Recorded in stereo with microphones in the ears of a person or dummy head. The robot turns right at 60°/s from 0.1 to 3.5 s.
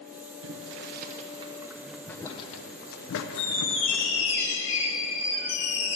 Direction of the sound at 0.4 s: 70° right (ahead or behind).